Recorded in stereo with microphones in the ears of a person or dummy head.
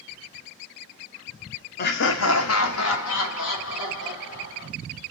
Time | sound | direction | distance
1.8 | laughter | 45° left (ahead or behind) | 0.6 m